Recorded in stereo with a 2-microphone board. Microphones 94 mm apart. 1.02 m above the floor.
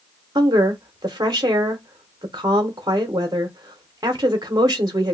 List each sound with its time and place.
0.3 s a woman speaking: 40° right (ahead or behind), 0.8 m